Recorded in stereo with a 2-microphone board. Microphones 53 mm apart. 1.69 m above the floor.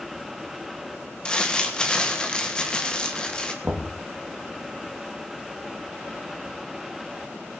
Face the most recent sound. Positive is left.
turn(degrees=-45)  # may be behind; listen again after turning